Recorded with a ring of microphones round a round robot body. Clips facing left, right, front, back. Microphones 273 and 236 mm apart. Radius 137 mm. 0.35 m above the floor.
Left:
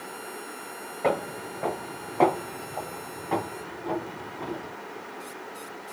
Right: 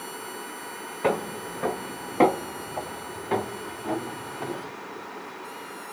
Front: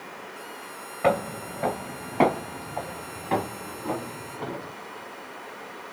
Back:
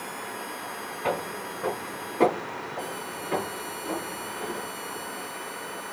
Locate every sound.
1.0 s footsteps: 25° right, 1.3 m; by 4.7 s 45° right, 3.5 m